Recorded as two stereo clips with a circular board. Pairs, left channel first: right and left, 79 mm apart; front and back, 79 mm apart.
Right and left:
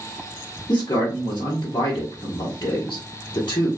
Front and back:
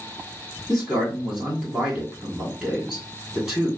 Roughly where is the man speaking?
Right.